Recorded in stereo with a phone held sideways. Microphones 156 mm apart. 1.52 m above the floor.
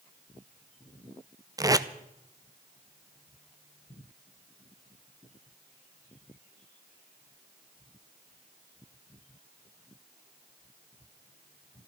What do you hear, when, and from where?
1.6 s tape being pulled: 20° right (ahead or behind), 0.5 m